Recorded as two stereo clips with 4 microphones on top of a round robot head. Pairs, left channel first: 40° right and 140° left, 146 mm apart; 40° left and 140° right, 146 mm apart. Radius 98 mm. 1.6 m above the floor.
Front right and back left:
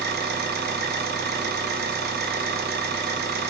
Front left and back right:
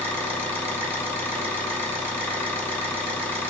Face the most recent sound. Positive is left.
turn(degrees=125)